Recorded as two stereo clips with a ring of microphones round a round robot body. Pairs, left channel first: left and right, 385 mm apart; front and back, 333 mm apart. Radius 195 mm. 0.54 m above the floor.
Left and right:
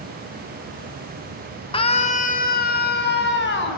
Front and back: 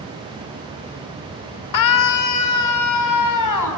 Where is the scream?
15° left, 2 m; by 3.8 s 30° left, 5 m.